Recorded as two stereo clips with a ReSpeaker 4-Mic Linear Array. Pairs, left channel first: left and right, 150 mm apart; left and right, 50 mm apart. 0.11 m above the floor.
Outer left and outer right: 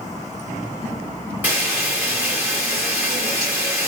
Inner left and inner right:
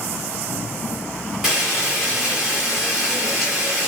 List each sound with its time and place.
1.4 s frying: 10° right (ahead or behind), 4.5 m